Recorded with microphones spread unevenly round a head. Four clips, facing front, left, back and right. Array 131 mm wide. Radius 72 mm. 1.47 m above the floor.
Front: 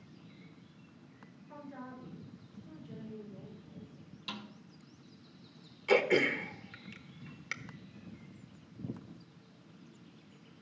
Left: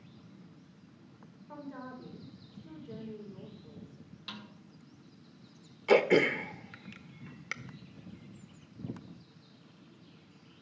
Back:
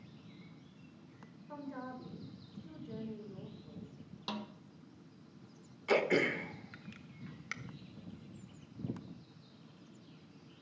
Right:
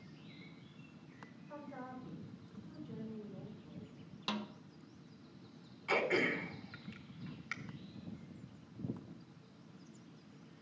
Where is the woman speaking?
125° left, 4.5 m.